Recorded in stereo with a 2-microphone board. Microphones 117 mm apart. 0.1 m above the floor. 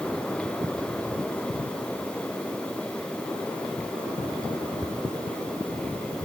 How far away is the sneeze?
I don't hear a sneeze.